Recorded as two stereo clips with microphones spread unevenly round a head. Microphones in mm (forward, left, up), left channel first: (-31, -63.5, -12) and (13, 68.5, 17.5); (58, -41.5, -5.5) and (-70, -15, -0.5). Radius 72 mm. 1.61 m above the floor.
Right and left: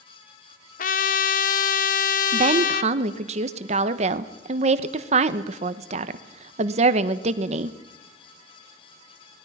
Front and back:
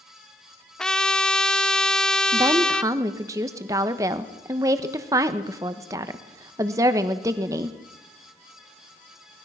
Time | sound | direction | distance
0.8 | a trumpet | 95° right | 1.1 m
2.3 | a woman speaking | 100° left | 1.1 m